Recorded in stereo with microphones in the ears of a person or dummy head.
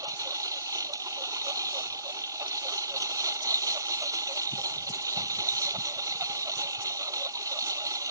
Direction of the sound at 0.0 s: 20° right (ahead or behind).